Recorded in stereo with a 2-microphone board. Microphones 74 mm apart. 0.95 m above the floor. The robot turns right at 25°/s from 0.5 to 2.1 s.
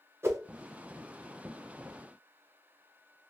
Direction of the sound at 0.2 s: 40° right (ahead or behind).